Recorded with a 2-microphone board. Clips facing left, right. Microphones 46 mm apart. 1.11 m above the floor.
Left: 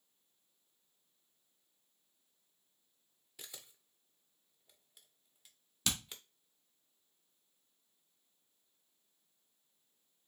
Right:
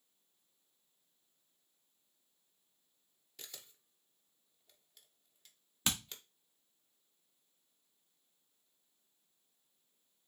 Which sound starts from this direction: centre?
A camera shutter, at 3.4 s.